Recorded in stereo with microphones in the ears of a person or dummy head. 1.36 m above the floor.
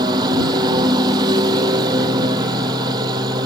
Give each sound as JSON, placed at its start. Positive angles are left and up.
{"t": 0.0, "sound": "a lawn mower", "side_deg": -20}